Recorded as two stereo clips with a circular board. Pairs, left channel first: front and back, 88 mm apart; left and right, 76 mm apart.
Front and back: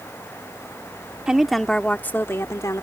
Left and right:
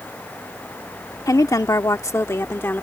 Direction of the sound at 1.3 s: 100° left.